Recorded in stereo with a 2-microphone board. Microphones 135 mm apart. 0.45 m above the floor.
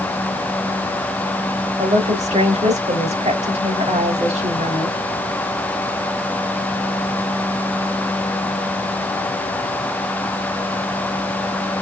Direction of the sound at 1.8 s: 60° right (ahead or behind).